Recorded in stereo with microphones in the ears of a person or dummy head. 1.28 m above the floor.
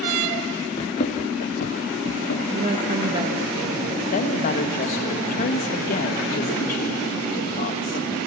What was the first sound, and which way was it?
Running footsteps, 15° left (ahead or behind).